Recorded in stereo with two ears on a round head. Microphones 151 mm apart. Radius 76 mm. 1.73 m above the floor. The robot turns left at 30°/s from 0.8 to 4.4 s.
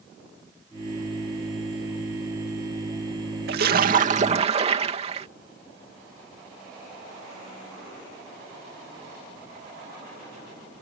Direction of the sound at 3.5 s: 65° right (ahead or behind).